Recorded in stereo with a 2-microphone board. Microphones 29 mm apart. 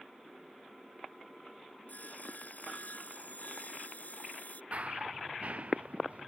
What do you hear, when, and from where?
1.9 s sawing: 65° left (ahead or behind)
4.7 s running footsteps: 50° right (ahead or behind); by 6.3 s 55° right (ahead or behind)